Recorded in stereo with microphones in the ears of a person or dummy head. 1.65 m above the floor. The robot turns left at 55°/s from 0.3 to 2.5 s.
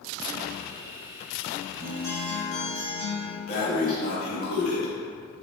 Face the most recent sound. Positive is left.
turn(degrees=55)  # may be behind; listen again after turning